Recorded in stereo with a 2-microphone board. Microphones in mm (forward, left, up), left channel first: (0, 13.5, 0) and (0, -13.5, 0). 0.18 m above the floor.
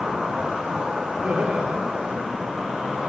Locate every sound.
0.0 s an insect: 50° right (ahead or behind), 6.5 m
1.2 s laughter: 65° right (ahead or behind), 3.5 m